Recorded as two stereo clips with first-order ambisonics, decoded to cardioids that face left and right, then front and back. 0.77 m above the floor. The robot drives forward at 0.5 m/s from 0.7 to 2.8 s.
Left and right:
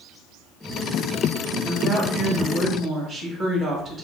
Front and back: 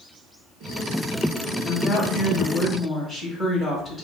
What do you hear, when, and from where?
1.6 s a woman speaking: 45° right, 1.1 m; by 4.0 s 110° right, 1.0 m